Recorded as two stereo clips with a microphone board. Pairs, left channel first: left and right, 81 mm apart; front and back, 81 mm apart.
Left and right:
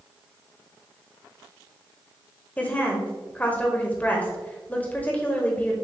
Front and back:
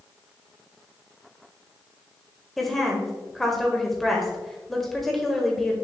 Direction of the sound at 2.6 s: 80° left.